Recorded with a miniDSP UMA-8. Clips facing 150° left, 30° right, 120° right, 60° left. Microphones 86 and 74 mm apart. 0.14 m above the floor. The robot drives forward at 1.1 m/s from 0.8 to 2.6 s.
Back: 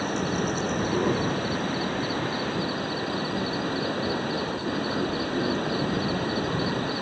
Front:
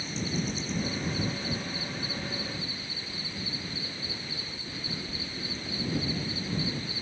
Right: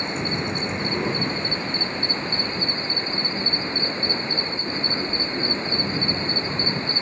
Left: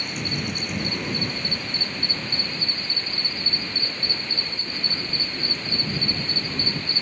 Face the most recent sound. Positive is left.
turn(degrees=180)